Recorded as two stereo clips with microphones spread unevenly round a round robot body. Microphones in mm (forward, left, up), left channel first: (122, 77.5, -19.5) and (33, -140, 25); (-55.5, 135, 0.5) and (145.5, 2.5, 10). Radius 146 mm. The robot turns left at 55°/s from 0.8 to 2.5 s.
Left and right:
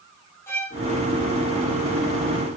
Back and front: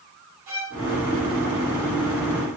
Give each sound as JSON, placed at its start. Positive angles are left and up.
{"t": 0.5, "sound": "a violin", "azimuth_deg": -10, "distance_m": 6.0}